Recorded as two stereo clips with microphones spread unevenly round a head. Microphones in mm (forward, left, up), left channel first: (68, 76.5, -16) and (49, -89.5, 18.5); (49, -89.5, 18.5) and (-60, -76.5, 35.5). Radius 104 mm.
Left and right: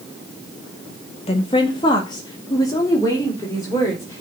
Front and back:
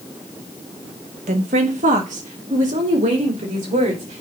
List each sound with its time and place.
1.3 s a woman speaking: 145° left, 1.0 m; by 4.2 s 160° left, 3 m